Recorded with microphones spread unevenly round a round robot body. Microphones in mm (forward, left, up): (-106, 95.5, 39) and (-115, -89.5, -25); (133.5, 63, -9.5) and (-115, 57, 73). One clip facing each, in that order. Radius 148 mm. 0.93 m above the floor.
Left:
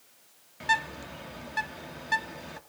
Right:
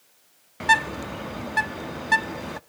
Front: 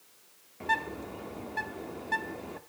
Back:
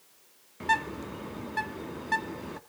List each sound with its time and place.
0.6 s a bird: 125° right, 0.5 m